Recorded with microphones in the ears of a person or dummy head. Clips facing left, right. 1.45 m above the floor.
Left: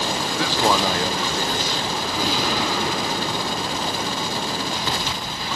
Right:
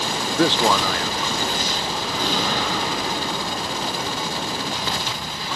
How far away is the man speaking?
About 0.5 m.